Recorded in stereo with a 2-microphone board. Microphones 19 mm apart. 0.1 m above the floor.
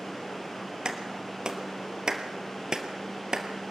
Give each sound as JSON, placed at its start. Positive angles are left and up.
{"t": 0.8, "sound": "a clap", "side_deg": -40, "distance_m": 2.0}